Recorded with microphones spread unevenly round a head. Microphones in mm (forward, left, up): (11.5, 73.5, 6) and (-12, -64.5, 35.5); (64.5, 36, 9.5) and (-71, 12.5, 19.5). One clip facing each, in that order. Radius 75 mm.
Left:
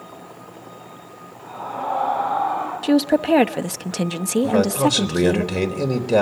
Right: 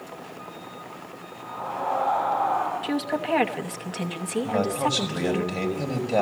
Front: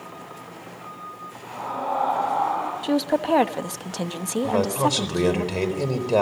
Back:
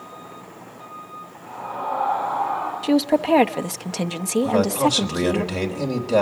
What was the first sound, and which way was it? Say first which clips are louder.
A scream: left 2 dB, even; 35° left.